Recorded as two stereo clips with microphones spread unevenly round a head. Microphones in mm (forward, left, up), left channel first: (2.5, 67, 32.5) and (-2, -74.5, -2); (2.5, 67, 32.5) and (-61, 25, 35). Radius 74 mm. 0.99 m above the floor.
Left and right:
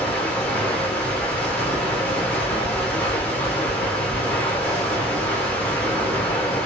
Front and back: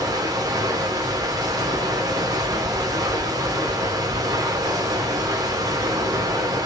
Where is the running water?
175° left, 1.0 m.